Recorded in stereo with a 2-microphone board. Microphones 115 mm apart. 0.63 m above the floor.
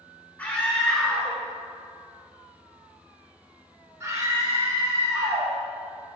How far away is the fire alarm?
I don't hear a fire alarm.